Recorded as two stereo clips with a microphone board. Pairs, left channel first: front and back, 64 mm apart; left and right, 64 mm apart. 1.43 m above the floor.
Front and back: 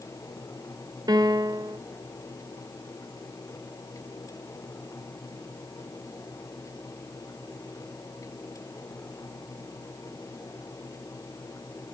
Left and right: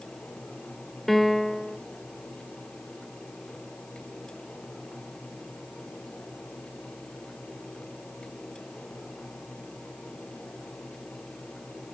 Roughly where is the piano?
Behind.